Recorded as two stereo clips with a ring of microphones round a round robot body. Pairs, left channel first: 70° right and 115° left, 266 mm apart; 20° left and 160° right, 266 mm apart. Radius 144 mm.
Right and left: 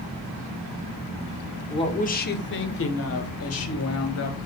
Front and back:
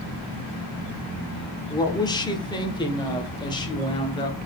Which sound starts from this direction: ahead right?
A woman speaking, at 1.7 s.